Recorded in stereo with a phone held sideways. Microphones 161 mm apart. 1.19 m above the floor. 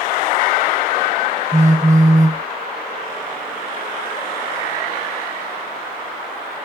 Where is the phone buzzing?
50° right (ahead or behind), 0.6 m.